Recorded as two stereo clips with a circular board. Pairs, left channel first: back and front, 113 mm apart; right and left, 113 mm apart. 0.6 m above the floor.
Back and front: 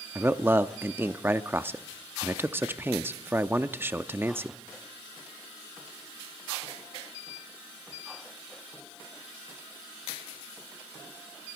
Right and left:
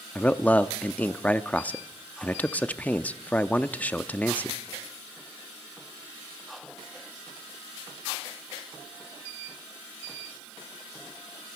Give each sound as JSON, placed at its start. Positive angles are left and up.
{"t": 0.1, "sound": "a man speaking", "azimuth_deg": -35, "distance_m": 0.6}